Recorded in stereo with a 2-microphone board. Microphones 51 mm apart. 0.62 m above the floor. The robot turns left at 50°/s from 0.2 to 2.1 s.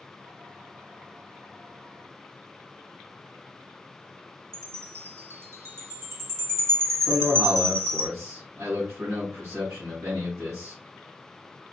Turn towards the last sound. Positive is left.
turn(degrees=-75)  # may be behind; listen again after turning